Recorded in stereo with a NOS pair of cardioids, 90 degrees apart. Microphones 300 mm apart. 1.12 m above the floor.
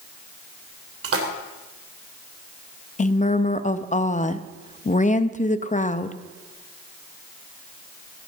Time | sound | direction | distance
1.0 | a splash | 50° right | 3 m
3.0 | a woman speaking | 25° left | 1.1 m